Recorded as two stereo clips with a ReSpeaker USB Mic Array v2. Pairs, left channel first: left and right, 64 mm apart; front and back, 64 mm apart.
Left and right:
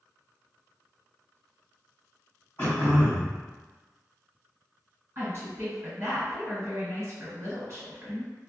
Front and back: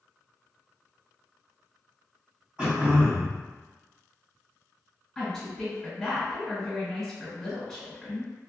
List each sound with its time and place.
2.6 s throat clearing: 120° left, 1.8 m
5.2 s a woman speaking: 70° right, 1.9 m